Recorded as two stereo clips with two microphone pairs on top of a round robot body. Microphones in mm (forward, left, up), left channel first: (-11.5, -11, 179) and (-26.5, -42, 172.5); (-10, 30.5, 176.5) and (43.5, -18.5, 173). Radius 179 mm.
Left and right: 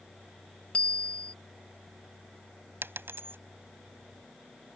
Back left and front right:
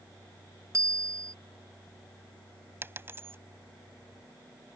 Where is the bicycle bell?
Straight ahead.